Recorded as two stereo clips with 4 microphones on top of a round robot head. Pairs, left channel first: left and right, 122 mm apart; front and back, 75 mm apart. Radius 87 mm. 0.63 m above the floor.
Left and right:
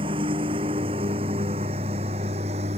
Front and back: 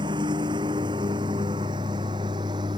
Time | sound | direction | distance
0.0 | a lawn mower | 145° right | ?